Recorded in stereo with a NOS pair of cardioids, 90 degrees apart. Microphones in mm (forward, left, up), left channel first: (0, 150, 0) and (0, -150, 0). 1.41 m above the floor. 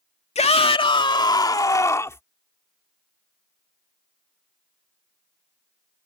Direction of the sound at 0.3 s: 20° left.